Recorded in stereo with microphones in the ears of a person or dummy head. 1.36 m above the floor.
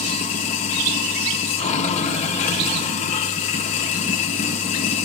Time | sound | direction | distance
0.0 | running water | 40° left (ahead or behind) | 3.5 m